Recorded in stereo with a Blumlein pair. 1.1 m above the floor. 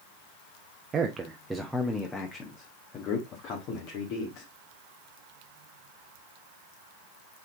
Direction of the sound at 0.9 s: 20° right.